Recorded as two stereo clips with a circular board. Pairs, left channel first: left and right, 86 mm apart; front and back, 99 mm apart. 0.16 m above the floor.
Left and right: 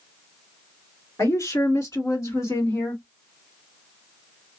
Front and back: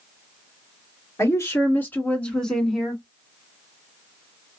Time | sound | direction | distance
1.2 | a woman speaking | 50° left | 2.5 m